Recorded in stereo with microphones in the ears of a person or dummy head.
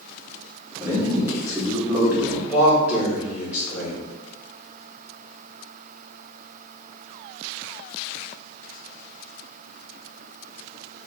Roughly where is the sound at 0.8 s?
Centre.